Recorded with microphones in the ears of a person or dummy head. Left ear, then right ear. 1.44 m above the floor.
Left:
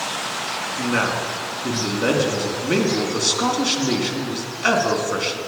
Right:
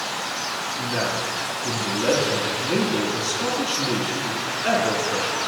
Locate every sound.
0.8 s a man speaking: 60° left (ahead or behind), 2 m